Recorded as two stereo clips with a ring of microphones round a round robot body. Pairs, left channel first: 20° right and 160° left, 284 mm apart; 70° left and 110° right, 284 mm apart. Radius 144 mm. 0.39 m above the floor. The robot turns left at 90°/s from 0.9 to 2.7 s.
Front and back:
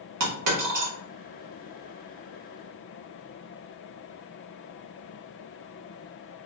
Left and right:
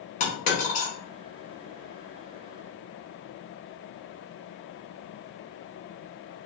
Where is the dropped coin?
130° left, 1.4 m.